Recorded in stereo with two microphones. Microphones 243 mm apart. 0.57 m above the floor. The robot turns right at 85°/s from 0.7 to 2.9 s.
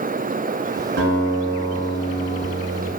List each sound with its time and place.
1.0 s a guitar: 55° right, 0.7 m; by 2.9 s 110° left, 0.7 m